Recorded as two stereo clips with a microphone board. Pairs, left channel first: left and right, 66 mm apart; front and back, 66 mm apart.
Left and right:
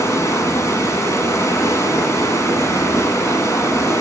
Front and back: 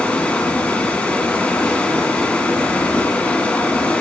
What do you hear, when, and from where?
0.0 s running water: 65° left, 1.7 m